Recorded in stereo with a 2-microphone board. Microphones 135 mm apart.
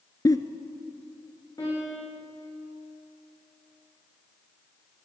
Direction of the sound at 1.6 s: 30° left (ahead or behind).